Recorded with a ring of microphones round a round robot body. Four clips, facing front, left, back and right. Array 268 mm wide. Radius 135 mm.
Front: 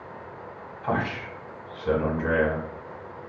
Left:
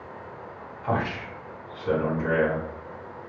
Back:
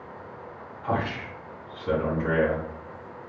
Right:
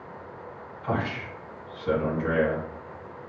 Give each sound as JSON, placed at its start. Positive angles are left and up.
{"t": 0.8, "sound": "a man speaking", "azimuth_deg": 15, "distance_m": 1.5}